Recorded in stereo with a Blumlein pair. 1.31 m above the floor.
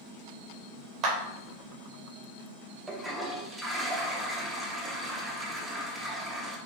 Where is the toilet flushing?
5° right, 0.6 m.